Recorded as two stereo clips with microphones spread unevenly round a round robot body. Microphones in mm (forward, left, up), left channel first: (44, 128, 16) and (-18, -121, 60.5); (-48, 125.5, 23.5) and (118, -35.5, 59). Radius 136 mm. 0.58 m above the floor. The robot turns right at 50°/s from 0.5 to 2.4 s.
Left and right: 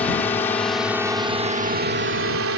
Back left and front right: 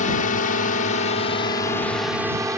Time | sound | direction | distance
0.0 | a drone | 145° left | ?